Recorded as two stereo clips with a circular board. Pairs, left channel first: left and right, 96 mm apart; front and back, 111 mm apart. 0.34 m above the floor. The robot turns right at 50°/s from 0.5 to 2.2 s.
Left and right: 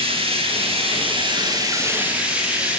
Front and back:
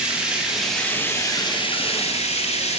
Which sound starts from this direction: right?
Running water, at 0.0 s.